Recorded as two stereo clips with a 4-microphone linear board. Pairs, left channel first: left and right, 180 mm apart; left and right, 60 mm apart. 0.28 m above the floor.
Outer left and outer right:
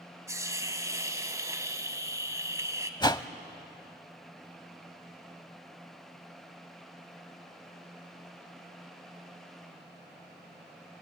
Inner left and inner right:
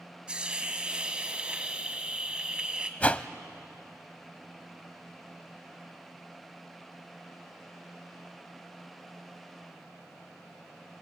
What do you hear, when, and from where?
0.3 s a hiss: 15° right (ahead or behind), 1.5 m
3.0 s a whoosh: 25° left (ahead or behind), 0.6 m